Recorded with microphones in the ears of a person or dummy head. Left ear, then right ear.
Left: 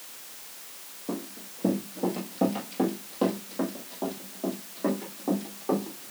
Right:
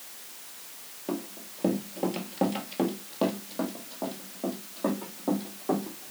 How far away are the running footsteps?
About 2.0 m.